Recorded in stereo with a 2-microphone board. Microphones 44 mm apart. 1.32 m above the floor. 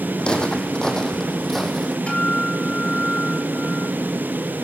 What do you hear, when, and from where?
0.2 s footsteps: 20° left (ahead or behind), 3.5 m; by 2.0 s centre (ahead or behind), 3.5 m
2.1 s a guitar: 25° left (ahead or behind), 4.5 m